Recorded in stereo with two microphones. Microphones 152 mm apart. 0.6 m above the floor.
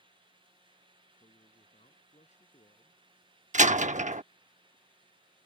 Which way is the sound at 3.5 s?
60° right (ahead or behind).